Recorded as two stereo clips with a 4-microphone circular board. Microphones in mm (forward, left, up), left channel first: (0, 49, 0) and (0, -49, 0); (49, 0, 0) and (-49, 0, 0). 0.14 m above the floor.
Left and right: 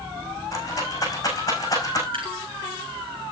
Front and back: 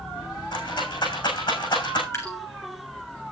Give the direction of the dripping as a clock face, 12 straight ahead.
2 o'clock.